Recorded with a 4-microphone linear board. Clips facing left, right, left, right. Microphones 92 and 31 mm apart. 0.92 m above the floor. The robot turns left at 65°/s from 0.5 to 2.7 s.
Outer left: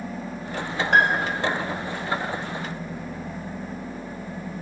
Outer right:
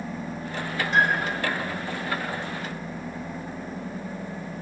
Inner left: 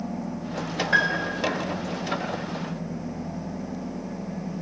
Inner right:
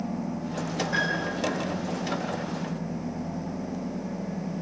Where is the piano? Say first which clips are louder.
Outer left 3 dB, inner left 6 dB; 65° left, 4 m; by 1.5 s 30° left, 4 m.